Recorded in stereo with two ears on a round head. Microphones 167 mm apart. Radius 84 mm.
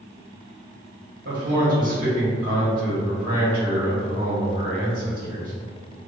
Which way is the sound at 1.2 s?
55° right (ahead or behind).